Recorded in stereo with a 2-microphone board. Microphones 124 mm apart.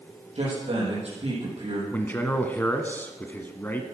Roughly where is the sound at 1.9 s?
Centre.